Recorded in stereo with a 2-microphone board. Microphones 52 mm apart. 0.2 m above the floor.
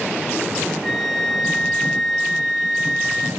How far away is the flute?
About 2 m.